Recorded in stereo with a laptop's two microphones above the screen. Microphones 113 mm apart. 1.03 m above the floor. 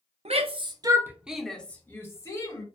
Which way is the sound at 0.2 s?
65° right (ahead or behind).